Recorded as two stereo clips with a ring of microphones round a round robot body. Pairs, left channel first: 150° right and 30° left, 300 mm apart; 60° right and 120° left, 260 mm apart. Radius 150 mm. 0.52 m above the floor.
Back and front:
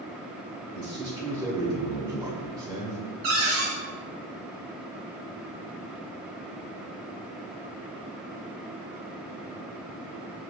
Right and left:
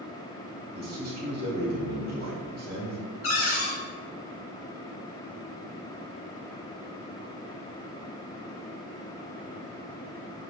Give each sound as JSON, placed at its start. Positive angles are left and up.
{"t": 0.8, "sound": "a man speaking", "azimuth_deg": 100, "distance_m": 1.0}
{"t": 3.2, "sound": "a cupboard door", "azimuth_deg": -20, "distance_m": 1.1}